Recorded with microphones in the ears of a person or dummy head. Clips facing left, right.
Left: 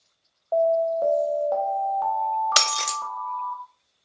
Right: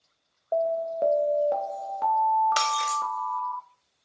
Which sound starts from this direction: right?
An alarm, at 0.5 s.